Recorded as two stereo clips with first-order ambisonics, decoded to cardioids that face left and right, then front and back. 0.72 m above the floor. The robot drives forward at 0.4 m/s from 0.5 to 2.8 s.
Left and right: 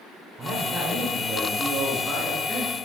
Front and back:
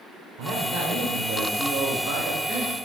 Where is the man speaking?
155° right, 2 m; by 2.7 s 160° right, 3 m.